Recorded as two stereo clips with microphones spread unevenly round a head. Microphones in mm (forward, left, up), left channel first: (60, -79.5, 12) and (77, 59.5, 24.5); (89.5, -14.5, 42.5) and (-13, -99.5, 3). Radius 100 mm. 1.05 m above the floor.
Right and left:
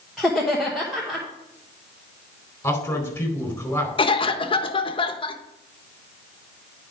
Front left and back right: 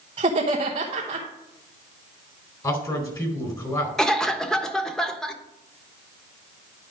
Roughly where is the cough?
Ahead right.